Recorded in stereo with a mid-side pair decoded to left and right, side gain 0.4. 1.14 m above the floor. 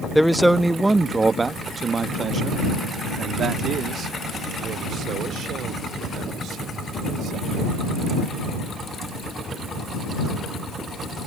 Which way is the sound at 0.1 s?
Straight ahead.